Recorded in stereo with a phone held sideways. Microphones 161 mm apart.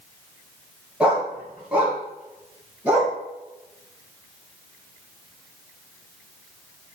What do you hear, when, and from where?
1.0 s a dog barking: 5° right (ahead or behind), 1.7 m; by 3.1 s 10° right (ahead or behind), 3 m